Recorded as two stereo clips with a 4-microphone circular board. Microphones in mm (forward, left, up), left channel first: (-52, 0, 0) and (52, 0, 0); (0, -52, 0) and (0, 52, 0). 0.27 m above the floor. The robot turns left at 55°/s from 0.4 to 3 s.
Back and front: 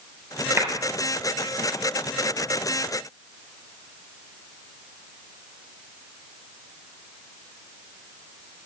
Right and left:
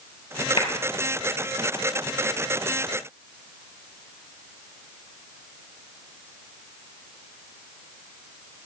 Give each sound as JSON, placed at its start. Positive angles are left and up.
{"t": 0.6, "sound": "a clap", "azimuth_deg": -65, "distance_m": 4.5}